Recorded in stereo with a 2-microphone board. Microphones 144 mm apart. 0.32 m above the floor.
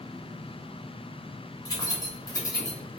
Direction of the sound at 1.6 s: 25° left (ahead or behind).